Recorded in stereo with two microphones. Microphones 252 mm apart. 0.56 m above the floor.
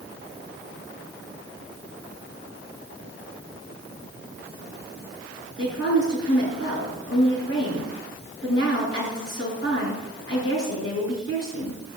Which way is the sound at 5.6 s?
55° left (ahead or behind).